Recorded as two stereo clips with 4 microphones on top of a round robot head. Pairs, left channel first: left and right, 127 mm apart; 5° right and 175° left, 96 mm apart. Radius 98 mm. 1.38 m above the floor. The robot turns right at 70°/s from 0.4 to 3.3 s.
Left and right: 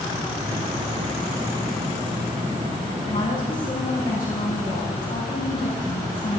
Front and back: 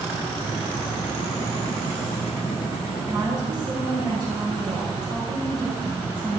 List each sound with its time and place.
3.1 s a woman speaking: 125° left, 5 m; by 6.4 s 140° left, 5 m